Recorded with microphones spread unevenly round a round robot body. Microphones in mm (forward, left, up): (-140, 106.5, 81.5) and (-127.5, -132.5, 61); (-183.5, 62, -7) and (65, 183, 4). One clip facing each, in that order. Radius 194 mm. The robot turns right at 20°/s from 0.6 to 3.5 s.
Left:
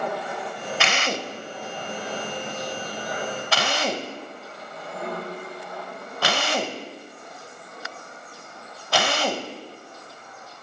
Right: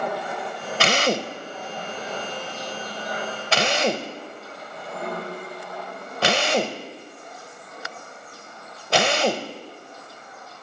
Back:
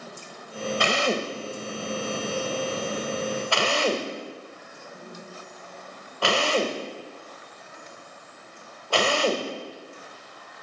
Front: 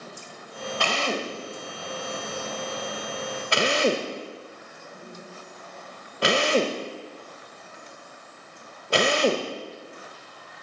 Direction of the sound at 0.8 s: 95° right.